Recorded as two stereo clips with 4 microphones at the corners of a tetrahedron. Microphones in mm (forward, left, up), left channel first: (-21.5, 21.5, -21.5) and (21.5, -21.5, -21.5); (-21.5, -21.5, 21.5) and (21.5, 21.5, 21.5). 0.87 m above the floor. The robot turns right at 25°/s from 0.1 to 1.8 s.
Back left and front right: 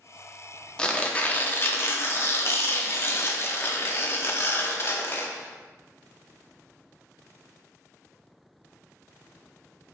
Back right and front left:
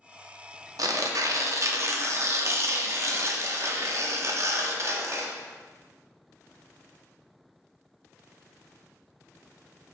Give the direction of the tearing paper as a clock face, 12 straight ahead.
10 o'clock.